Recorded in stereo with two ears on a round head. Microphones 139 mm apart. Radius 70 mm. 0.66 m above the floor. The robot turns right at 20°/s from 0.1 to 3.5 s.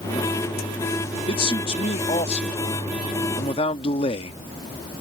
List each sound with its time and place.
1.3 s a man speaking: 60° left; by 4.4 s 105° left